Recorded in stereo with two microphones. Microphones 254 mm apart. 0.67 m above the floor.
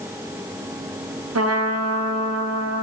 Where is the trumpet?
75° right (ahead or behind), 0.6 m.